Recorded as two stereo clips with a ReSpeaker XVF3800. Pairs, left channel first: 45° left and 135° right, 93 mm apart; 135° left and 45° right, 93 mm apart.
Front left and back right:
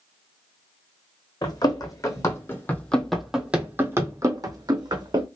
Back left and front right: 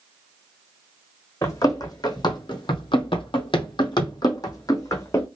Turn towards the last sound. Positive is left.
turn(degrees=-170)